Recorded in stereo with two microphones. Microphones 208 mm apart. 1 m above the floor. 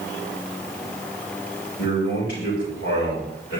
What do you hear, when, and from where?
1.8 s a man speaking: 80° left, 4.5 m